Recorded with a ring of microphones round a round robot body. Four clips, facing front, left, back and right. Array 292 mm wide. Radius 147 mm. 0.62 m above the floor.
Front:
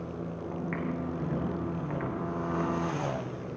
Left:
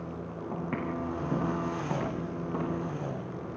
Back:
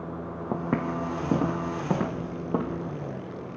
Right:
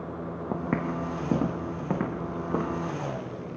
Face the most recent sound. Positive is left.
turn(degrees=-140)